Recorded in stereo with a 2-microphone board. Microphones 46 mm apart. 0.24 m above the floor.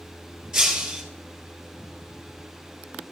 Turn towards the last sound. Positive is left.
turn(degrees=-10)  # may be behind; listen again after turning